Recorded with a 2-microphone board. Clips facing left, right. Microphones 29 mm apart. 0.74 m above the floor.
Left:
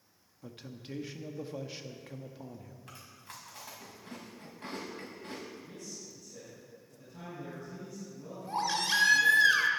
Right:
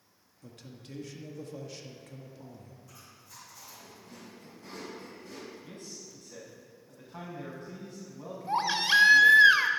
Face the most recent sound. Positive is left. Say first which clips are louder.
# right 5 dB
turn(degrees=-30)  # may be behind; listen again after turning